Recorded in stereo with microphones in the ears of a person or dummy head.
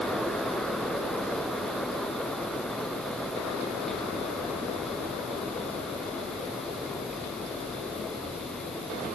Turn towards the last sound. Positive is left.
turn(degrees=10)  # may be behind; listen again after turning